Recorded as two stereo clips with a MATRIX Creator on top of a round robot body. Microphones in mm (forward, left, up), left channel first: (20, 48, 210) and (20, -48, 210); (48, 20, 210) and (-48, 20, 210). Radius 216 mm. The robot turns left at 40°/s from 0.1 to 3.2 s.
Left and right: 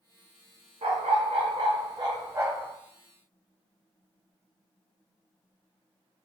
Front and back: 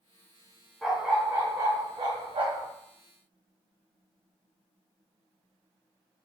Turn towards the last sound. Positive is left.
turn(degrees=175)